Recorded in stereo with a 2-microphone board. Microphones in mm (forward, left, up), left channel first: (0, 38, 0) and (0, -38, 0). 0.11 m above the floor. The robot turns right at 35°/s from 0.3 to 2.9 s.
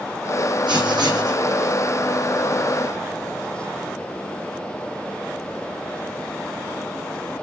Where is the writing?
80° right, 1.5 m; by 1.4 s 60° right (ahead or behind), 1.5 m.